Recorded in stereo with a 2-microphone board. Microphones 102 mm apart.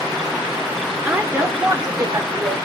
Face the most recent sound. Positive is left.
turn(degrees=-50)  # may be behind; listen again after turning